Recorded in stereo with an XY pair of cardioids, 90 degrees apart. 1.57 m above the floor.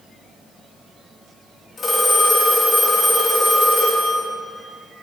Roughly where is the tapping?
I don't hear tapping.